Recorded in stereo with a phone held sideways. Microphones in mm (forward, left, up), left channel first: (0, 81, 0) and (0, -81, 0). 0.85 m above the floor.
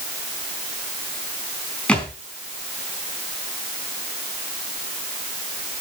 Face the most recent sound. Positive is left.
turn(degrees=5)  # may be behind; listen again after turning